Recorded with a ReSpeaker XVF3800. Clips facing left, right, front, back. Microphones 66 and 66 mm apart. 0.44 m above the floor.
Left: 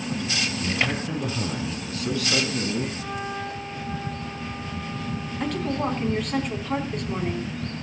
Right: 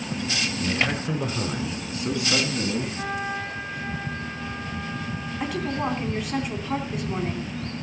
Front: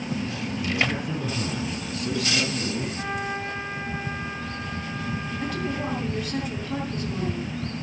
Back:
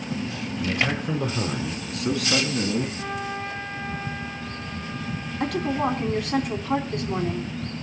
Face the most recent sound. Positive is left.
turn(degrees=-175)